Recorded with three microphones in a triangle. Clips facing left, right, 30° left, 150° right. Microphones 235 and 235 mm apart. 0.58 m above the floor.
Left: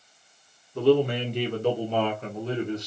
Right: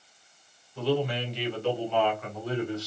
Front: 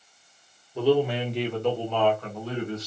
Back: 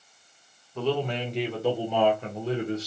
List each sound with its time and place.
0.8 s a man speaking: 105° left, 1.6 m; by 2.9 s 160° left, 1.5 m